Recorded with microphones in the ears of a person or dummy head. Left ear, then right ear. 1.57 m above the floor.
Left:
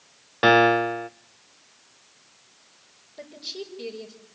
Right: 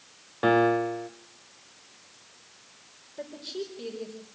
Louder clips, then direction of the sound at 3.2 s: Even; 10° left (ahead or behind).